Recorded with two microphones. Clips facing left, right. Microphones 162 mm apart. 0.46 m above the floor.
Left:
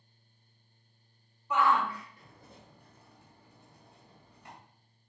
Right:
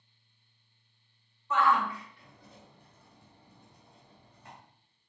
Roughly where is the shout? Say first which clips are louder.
Even; centre.